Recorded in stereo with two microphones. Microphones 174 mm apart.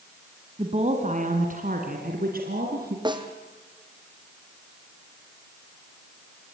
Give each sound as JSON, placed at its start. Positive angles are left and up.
{"t": 0.6, "sound": "a woman speaking", "side_deg": -35, "distance_m": 2.0}
{"t": 3.0, "sound": "a snare drum", "side_deg": -25, "distance_m": 2.0}